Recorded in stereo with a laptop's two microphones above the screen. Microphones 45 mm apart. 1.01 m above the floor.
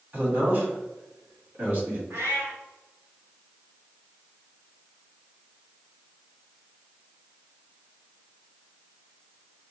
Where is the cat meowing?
70° right (ahead or behind), 1.9 m.